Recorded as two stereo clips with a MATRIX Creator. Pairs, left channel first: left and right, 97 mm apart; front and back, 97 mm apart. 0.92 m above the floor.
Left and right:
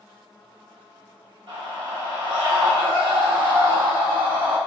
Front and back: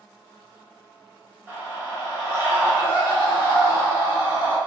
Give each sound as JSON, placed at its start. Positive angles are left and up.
{"t": 1.5, "sound": "a scream", "azimuth_deg": -115, "distance_m": 1.5}